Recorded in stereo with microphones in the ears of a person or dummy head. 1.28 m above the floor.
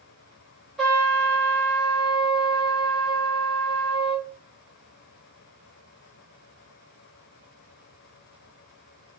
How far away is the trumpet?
About 0.6 m.